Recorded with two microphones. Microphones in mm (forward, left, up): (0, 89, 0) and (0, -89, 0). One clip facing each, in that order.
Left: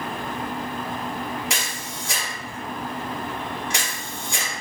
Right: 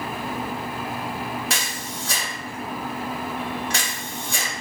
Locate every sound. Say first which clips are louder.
1.5 s a camera shutter: right 1 dB; 15° left (ahead or behind), 2 m